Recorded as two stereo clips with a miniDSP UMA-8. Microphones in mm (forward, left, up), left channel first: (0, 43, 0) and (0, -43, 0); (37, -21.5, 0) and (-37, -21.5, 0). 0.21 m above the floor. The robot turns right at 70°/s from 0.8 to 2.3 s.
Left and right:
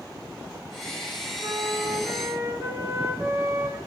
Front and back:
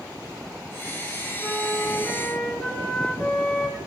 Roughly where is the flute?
Behind right.